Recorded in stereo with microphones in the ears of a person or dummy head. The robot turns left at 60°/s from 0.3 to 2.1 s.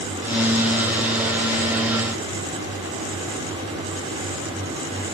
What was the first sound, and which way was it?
Only background noise.